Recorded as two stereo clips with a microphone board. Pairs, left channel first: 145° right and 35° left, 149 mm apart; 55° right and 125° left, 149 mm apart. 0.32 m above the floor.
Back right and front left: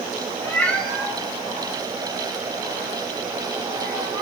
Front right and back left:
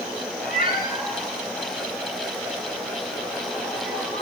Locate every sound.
0.4 s a cat meowing: 75° right, 1.0 m; by 4.2 s 40° right, 4.5 m